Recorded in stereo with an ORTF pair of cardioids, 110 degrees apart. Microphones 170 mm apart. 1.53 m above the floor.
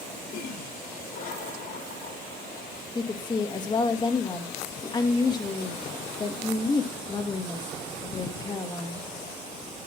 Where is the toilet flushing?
60° left, 5.5 m.